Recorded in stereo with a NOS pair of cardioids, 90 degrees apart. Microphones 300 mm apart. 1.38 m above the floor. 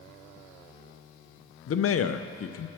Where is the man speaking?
50° left, 0.8 m.